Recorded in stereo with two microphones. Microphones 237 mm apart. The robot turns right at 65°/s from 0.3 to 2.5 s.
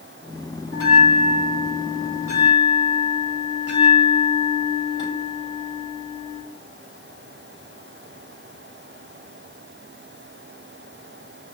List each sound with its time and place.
0.7 s a bell: 65° left, 1.5 m; by 6.4 s 175° right, 1.5 m